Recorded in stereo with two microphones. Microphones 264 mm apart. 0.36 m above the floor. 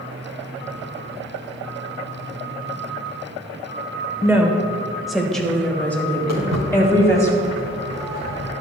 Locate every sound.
4.2 s a woman speaking: 10° right (ahead or behind), 1.2 m; by 7.3 s 10° left (ahead or behind), 2.5 m
6.3 s footsteps: 80° right, 3.5 m; by 8.5 s 75° right (ahead or behind), 2.5 m